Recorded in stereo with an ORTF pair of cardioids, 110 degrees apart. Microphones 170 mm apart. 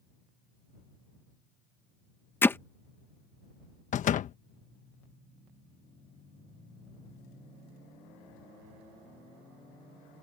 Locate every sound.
2.4 s hammering: 15° left
3.9 s a door slam: 50° left